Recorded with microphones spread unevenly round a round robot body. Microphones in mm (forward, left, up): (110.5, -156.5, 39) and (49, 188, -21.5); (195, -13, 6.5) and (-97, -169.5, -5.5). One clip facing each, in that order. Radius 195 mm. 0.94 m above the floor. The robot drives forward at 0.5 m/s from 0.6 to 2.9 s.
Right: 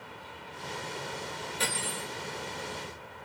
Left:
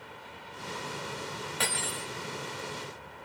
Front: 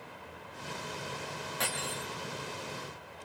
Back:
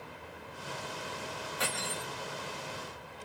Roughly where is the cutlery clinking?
Ahead left.